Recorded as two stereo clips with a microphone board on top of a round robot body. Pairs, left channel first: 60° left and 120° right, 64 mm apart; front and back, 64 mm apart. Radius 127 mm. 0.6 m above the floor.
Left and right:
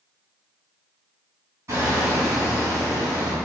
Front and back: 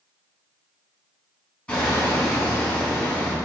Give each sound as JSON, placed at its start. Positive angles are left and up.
{"t": 1.7, "sound": "hammering", "azimuth_deg": -70, "distance_m": 3.5}